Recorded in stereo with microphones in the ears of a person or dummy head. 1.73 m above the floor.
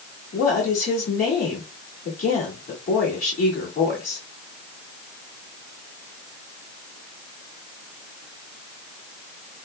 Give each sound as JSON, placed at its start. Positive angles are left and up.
{"t": 0.3, "sound": "a woman speaking", "side_deg": 45, "distance_m": 1.8}